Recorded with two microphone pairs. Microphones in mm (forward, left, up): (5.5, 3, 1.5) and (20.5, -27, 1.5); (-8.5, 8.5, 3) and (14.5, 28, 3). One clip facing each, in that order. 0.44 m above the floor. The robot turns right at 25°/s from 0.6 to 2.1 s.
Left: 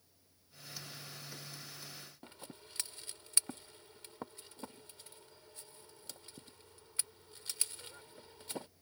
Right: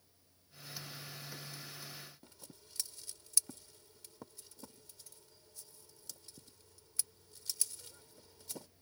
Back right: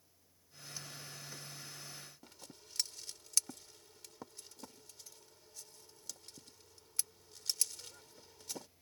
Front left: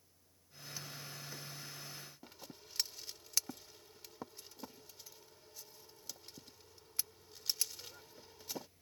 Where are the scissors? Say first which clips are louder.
Left 6 dB, front left 2 dB; 110° left.